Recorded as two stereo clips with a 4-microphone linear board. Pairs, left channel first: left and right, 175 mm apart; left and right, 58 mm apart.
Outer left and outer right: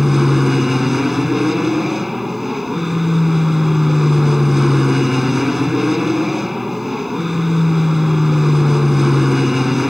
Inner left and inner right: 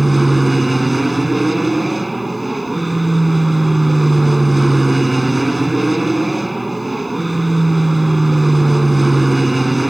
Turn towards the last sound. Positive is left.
turn(degrees=0)  # may be behind; listen again after turning